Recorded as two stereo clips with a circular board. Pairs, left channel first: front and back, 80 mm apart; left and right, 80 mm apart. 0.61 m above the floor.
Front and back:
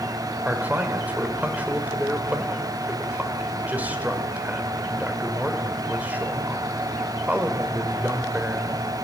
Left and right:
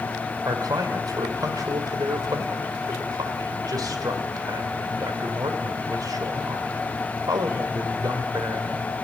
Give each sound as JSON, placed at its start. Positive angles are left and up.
{"t": 0.5, "sound": "a man speaking", "azimuth_deg": -115, "distance_m": 2.0}